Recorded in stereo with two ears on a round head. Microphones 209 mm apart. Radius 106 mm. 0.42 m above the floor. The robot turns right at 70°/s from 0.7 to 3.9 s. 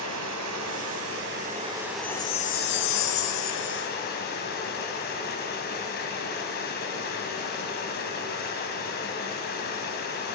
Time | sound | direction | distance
0.0 | running water | 90° right | 2.5 m
2.0 | a chime | 5° left | 0.8 m